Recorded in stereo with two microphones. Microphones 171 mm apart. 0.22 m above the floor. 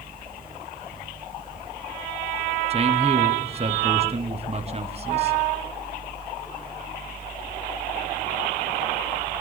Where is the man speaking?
35° right (ahead or behind), 2.0 m.